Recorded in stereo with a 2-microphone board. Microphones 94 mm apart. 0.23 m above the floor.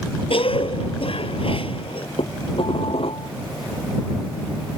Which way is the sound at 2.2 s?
80° left.